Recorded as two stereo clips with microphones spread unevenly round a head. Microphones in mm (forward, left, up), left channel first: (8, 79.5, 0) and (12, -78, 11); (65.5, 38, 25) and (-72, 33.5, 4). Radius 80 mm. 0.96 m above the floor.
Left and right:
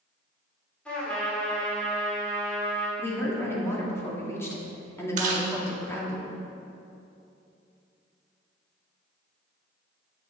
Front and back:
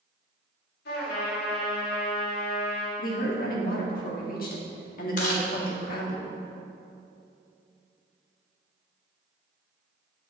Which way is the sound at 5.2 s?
45° right.